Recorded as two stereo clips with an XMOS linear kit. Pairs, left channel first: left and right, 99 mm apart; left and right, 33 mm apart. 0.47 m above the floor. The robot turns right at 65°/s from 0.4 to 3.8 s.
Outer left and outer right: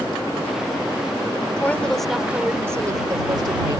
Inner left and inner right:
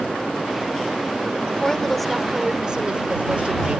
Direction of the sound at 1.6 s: 150° left.